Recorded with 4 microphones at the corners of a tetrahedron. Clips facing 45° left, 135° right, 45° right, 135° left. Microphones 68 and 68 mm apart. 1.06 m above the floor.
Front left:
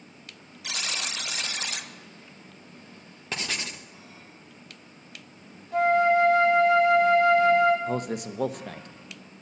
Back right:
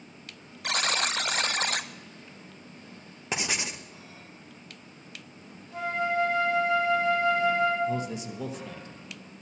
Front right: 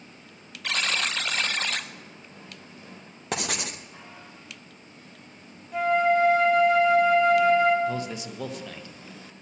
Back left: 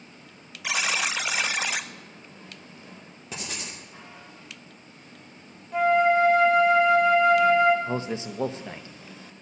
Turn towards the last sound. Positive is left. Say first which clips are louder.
# front left 2 dB, back left 1 dB
turn(degrees=75)